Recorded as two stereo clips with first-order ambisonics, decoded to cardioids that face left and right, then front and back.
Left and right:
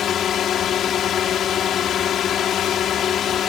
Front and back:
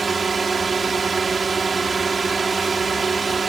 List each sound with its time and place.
0.0 s a drone: 120° left